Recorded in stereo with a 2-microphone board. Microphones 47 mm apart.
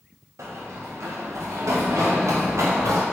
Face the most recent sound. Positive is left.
turn(degrees=-85)